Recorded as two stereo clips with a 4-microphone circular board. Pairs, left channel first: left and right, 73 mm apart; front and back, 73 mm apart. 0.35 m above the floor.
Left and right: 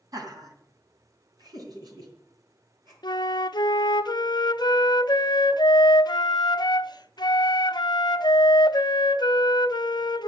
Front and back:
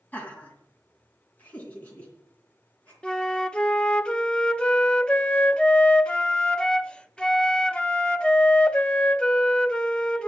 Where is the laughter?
65° right, 2 m.